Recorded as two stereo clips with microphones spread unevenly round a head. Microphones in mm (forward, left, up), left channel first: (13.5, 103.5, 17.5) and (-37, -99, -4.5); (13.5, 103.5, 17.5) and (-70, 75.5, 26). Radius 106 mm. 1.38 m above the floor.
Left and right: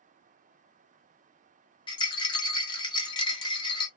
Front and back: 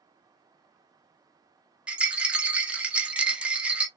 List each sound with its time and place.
1.9 s a rattle: 130° left, 0.7 m